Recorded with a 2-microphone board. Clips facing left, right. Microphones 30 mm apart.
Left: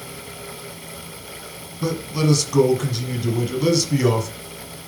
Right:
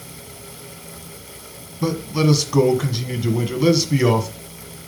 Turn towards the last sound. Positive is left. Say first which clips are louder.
# right 2 dB
turn(degrees=-15)  # may be behind; listen again after turning